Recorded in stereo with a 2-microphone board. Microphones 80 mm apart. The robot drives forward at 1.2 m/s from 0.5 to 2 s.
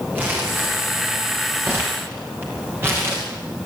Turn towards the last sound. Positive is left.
turn(degrees=-30)  # may be behind; listen again after turning